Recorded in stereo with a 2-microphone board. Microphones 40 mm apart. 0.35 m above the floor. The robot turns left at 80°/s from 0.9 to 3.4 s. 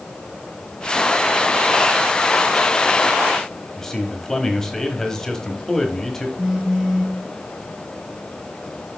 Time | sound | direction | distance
3.8 | a man speaking | 10° left (ahead or behind) | 1.5 m
6.4 | a phone buzzing | 20° right (ahead or behind) | 1.7 m